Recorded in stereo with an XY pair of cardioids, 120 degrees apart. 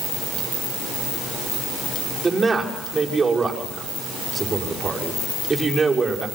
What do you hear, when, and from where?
2.2 s a man speaking: 20° right, 6.5 m